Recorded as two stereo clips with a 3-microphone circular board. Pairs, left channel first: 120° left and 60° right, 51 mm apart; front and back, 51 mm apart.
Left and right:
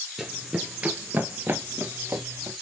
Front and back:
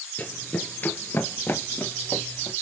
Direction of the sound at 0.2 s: 20° left.